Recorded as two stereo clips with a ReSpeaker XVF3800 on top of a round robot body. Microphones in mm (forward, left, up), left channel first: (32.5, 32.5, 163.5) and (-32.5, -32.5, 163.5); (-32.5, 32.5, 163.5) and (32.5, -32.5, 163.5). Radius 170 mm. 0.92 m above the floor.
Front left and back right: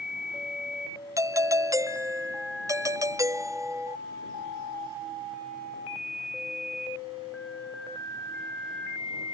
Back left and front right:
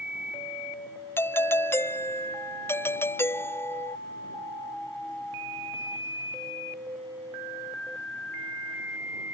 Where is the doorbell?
170° right.